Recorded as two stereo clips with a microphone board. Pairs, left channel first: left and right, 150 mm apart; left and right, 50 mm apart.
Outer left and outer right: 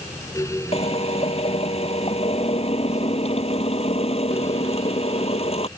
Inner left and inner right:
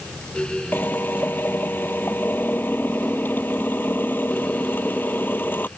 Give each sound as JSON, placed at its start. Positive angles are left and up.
{"t": 0.7, "sound": "a drill", "side_deg": 40}